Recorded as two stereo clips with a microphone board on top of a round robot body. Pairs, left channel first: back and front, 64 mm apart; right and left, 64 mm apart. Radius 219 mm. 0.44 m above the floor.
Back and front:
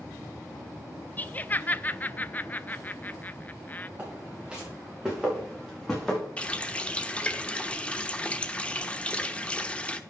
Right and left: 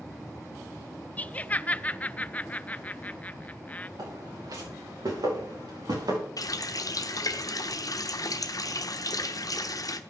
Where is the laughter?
140° right, 0.8 m.